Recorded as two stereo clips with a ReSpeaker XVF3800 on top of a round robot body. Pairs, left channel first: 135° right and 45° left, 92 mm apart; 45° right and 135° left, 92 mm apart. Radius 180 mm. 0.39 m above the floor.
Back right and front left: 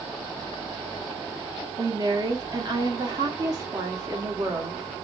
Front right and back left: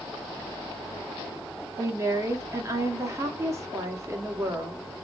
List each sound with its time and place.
1.8 s a woman speaking: 85° left, 1.6 m